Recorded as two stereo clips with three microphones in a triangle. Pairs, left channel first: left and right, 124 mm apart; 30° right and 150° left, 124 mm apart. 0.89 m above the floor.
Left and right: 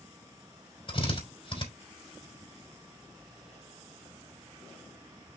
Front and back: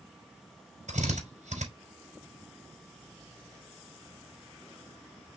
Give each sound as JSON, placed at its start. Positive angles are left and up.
{"t": 0.9, "sound": "a drill", "azimuth_deg": 135, "distance_m": 4.0}